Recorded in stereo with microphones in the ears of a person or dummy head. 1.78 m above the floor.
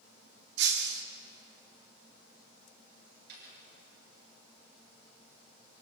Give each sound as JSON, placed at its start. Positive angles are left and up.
{"t": 0.6, "sound": "breaking glass", "side_deg": -65, "distance_m": 2.0}
{"t": 3.3, "sound": "a dropped coin", "side_deg": -60, "distance_m": 9.5}